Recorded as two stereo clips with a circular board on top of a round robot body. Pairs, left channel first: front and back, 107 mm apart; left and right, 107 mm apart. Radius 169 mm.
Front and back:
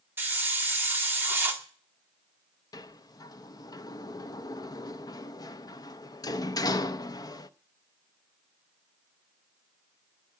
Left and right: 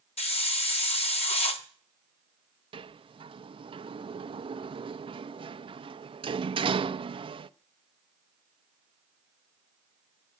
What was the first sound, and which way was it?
A hiss, 110° left.